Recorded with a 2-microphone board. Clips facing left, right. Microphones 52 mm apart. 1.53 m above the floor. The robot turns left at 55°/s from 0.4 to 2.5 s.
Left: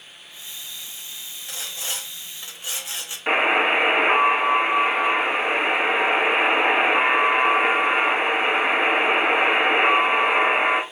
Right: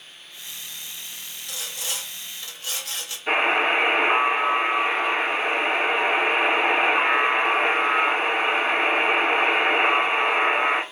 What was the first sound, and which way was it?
Sawing, 30° left (ahead or behind).